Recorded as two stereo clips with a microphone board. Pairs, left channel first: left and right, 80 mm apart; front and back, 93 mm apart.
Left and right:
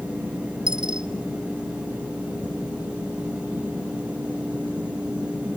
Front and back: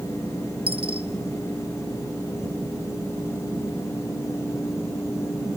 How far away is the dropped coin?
About 1.3 m.